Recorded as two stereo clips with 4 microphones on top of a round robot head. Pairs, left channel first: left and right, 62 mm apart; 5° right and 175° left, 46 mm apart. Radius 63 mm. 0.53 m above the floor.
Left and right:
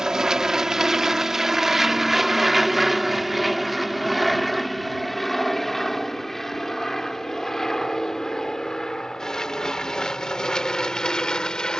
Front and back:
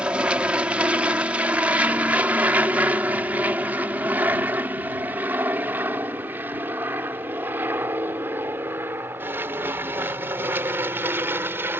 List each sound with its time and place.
0.0 s an aircraft: 160° right; by 11.8 s 165° left